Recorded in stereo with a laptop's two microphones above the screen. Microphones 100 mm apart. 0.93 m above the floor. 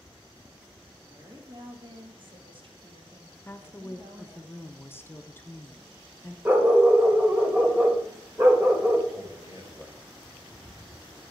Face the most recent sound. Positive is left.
turn(degrees=-30)  # may be behind; listen again after turning